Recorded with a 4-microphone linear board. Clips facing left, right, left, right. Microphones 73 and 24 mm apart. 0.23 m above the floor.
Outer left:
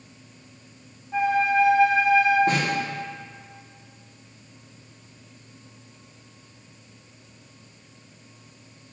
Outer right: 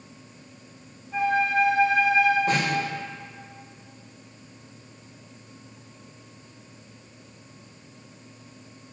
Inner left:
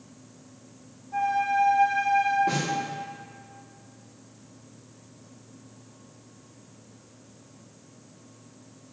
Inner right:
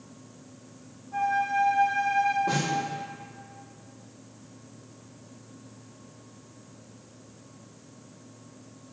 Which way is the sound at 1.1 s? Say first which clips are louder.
Outer left 2 dB, inner left 1 dB; 25° left (ahead or behind).